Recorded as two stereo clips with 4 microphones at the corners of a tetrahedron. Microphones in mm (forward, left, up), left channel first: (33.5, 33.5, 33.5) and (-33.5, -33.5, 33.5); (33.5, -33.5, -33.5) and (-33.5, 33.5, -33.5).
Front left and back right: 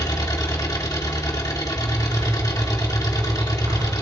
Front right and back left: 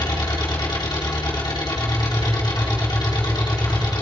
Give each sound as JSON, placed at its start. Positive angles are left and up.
{"t": 0.0, "sound": "an engine running", "azimuth_deg": -5, "distance_m": 2.0}
{"t": 1.8, "sound": "a zipper", "azimuth_deg": -110, "distance_m": 7.0}